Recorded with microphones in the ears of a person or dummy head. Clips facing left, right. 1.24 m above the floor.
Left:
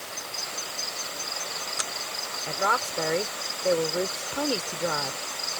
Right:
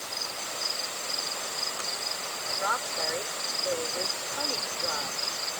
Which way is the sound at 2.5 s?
50° left (ahead or behind).